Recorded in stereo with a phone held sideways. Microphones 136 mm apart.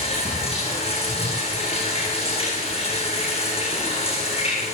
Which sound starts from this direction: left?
Running water, at 0.0 s.